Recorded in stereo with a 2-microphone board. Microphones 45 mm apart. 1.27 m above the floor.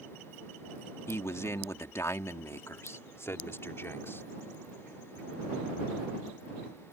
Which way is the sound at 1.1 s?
70° left (ahead or behind).